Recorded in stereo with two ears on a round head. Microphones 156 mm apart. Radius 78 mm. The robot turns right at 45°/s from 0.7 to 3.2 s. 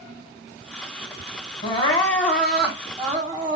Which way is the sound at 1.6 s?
140° left.